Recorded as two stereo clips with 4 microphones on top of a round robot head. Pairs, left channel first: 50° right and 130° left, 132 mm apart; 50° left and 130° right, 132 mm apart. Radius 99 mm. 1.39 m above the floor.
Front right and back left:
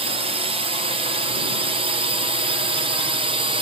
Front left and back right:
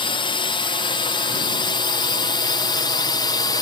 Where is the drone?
95° left; by 3.6 s 100° left.